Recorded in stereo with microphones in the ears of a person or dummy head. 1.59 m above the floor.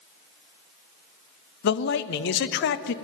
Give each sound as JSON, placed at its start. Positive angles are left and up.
{"t": 1.6, "sound": "a man speaking", "side_deg": 60, "distance_m": 0.7}